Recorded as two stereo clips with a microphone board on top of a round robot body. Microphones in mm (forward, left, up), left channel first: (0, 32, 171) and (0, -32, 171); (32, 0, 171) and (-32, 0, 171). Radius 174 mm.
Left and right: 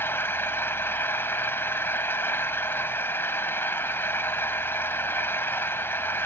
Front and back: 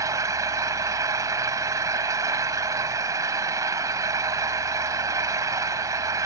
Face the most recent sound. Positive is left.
turn(degrees=145)